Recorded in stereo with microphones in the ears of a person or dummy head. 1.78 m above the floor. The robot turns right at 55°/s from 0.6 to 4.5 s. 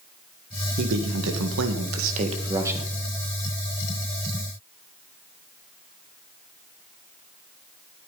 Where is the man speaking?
120° right, 2 m; by 2.9 s 5° right, 2 m.